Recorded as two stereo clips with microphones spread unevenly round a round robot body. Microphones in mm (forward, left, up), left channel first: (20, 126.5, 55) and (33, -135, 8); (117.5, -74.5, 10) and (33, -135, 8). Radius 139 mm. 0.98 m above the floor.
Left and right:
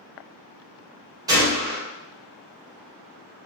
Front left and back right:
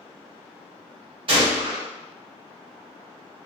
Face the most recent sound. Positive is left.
turn(degrees=-150)